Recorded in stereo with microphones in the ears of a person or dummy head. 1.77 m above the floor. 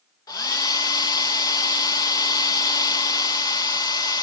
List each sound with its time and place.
0.3 s a hair dryer: 20° left (ahead or behind), 1.6 m